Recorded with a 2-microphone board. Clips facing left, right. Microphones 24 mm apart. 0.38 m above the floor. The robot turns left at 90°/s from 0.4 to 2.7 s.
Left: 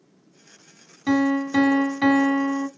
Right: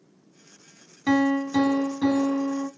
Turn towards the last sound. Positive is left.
turn(degrees=35)